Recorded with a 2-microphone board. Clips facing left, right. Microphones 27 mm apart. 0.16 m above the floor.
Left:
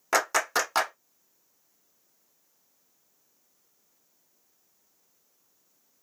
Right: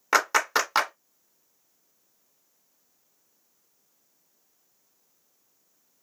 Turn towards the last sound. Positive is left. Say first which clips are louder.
# right 3 dB
turn(degrees=-20)  # may be behind; listen again after turning